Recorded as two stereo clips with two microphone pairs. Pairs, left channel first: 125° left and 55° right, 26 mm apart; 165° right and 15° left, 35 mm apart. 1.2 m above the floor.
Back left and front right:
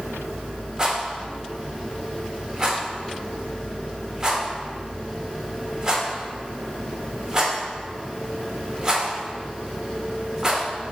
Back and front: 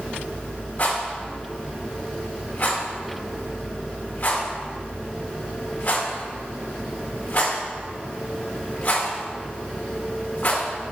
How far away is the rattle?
About 1.7 m.